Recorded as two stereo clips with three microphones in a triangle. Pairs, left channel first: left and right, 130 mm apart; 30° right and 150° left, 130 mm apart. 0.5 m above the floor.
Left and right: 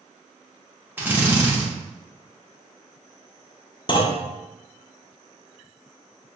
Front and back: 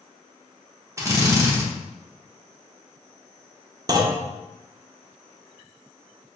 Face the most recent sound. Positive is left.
turn(degrees=110)